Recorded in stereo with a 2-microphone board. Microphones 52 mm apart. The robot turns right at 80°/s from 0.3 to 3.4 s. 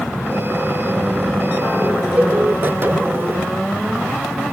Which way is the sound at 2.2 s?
25° right (ahead or behind).